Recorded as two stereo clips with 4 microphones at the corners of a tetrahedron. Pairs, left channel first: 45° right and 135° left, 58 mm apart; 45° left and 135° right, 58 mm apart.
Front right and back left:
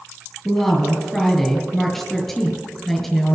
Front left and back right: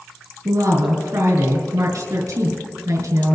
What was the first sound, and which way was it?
A woman speaking, 130° right.